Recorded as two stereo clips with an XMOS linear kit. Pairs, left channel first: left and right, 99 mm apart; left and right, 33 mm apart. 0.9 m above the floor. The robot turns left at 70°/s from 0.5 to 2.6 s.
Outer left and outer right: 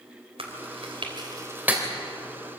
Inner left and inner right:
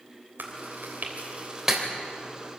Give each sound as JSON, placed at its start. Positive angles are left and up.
{"t": 0.4, "sound": "chewing", "side_deg": -75, "distance_m": 3.5}